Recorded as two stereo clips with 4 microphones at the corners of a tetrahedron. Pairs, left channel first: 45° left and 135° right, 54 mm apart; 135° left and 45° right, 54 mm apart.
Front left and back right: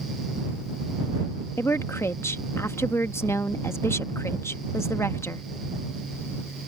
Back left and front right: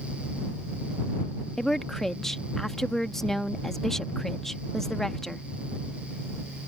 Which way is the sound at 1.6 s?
50° left.